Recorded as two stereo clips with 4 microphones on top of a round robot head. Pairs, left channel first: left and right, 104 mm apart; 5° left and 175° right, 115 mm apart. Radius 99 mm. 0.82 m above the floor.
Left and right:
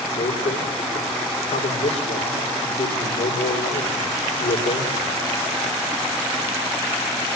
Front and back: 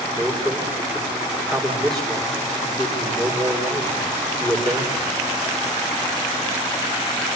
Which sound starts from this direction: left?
A man speaking, at 0.2 s.